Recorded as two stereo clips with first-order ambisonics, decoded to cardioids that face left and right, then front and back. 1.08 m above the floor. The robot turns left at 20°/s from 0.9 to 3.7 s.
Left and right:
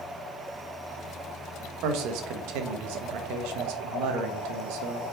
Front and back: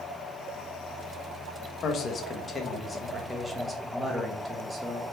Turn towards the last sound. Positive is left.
turn(degrees=-105)